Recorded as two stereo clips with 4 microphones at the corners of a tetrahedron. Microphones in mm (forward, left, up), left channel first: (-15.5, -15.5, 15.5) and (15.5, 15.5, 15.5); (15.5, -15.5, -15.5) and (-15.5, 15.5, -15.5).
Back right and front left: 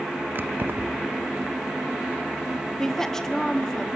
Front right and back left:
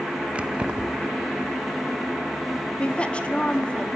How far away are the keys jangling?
About 0.8 m.